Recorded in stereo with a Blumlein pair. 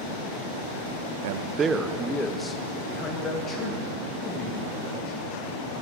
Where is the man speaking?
55° right, 0.5 m; by 5.2 s 25° left, 3.5 m.